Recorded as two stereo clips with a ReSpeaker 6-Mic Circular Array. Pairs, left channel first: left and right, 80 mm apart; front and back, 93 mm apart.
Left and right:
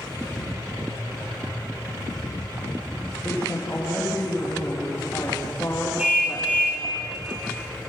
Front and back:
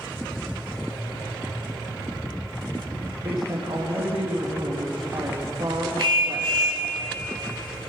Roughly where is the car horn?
Behind.